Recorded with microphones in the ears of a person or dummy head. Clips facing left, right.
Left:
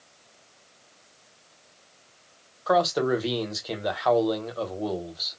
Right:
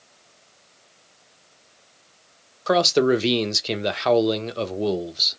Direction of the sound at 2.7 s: 40° right (ahead or behind).